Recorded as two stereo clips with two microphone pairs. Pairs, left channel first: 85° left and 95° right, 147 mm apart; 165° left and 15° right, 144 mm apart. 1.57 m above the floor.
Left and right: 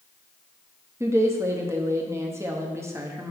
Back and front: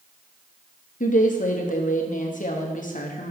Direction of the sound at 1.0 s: 170° right.